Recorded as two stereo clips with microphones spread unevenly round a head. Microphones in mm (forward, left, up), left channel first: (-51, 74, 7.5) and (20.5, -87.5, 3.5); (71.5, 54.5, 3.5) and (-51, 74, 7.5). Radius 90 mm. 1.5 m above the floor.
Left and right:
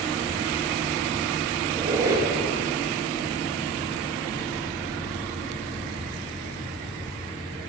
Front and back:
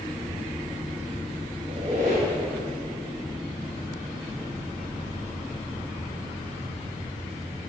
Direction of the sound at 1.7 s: 135° right.